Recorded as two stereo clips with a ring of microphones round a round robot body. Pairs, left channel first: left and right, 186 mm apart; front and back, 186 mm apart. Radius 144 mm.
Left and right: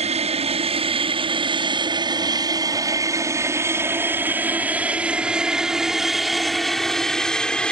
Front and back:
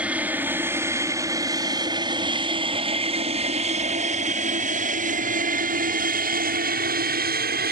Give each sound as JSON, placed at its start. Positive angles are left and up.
{"t": 0.0, "sound": "an aircraft", "azimuth_deg": -100}